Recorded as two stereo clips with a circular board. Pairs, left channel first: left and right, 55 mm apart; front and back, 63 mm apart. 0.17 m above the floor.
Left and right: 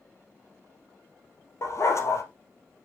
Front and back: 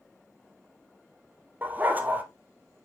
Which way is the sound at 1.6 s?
115° left.